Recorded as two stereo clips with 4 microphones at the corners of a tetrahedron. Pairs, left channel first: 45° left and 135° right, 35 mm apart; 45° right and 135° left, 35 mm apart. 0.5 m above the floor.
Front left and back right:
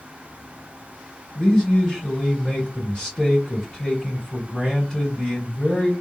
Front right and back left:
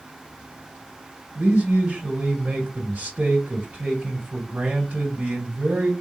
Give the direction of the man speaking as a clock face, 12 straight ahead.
9 o'clock.